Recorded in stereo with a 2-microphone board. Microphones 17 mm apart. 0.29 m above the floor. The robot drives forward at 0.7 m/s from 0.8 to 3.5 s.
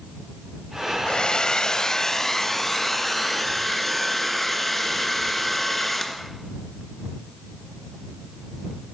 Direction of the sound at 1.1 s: 45° left (ahead or behind).